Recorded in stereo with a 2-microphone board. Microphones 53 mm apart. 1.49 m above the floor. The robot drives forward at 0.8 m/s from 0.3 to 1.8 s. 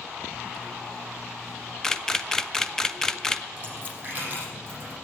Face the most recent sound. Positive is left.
turn(degrees=-30)  # may be behind; listen again after turning